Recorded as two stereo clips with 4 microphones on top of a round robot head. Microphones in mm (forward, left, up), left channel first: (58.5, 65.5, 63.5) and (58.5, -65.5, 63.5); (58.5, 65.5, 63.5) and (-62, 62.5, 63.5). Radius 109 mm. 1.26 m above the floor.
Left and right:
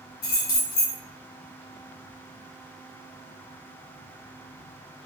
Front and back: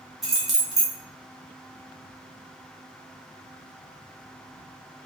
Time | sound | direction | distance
0.2 | keys jangling | 95° left | 0.8 m